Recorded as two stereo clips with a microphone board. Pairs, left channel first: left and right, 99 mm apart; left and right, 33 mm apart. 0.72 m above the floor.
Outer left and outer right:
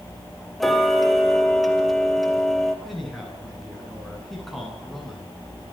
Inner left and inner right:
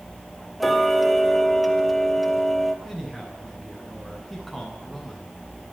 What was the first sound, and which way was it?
Ticking, centre (ahead or behind).